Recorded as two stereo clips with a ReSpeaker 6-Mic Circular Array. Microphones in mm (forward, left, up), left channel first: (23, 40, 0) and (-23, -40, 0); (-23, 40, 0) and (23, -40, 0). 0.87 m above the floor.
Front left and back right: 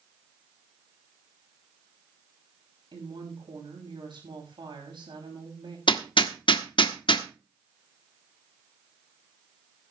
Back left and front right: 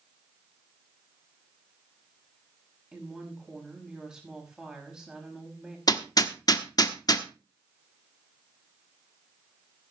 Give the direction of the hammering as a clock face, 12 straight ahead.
9 o'clock.